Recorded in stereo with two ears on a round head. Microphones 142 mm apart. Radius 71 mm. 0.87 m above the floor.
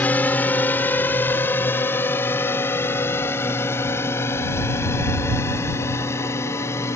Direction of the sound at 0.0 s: 10° left (ahead or behind).